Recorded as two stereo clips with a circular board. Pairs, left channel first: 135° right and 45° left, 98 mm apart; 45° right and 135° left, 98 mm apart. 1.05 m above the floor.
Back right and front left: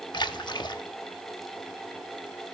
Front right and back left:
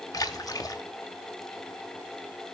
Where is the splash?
95° right, 1.0 m.